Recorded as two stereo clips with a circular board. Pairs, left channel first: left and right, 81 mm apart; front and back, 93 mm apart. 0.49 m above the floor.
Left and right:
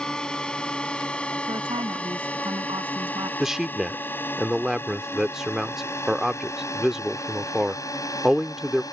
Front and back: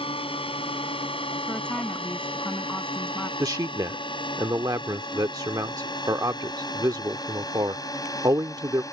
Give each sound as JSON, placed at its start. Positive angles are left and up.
{"t": 0.0, "sound": "a drone", "azimuth_deg": 10}
{"t": 1.5, "sound": "a woman speaking", "azimuth_deg": -80}
{"t": 3.4, "sound": "a man speaking", "azimuth_deg": -170}